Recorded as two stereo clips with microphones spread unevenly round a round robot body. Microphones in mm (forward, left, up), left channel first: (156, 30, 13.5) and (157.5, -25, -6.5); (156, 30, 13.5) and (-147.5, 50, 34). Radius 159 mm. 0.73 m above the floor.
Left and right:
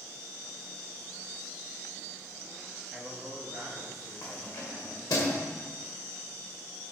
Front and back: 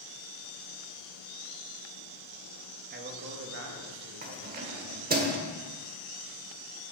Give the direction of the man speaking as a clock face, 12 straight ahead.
5 o'clock.